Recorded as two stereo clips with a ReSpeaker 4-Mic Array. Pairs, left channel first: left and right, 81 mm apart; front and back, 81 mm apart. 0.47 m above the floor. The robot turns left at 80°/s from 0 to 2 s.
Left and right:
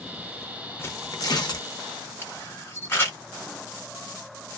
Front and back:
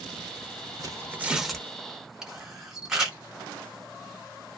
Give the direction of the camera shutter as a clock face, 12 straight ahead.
9 o'clock.